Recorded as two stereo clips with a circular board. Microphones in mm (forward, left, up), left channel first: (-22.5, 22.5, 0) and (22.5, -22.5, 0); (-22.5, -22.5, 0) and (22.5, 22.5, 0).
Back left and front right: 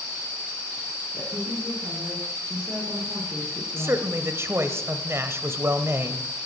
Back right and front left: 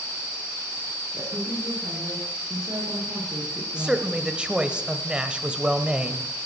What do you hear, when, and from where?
1.1 s a woman speaking: 20° left, 8 m
3.8 s a man speaking: 20° right, 1.3 m